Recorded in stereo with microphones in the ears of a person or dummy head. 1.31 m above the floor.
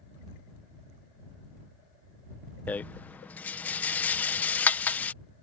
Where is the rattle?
5° left (ahead or behind).